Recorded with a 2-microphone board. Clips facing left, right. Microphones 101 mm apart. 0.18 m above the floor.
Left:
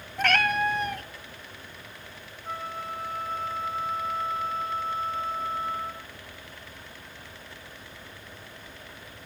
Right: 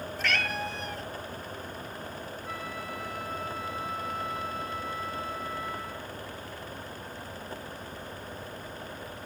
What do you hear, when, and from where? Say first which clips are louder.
0.2 s a cat meowing: left 8 dB; 55° left (ahead or behind), 0.7 m
2.4 s a flute: left 6 dB; 35° left (ahead or behind), 1.1 m